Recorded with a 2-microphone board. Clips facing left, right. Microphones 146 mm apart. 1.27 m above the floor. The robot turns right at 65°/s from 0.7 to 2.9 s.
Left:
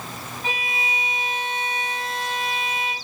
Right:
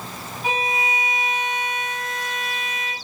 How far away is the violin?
About 1.0 m.